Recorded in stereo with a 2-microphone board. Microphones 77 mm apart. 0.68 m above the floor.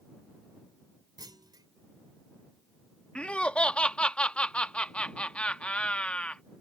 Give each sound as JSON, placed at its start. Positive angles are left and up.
{"t": 1.2, "sound": "a clunk", "side_deg": -65}
{"t": 3.1, "sound": "laughter", "side_deg": 15}